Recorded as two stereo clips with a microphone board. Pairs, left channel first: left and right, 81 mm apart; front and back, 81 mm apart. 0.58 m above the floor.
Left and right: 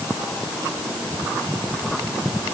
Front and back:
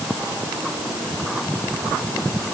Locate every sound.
Only background noise.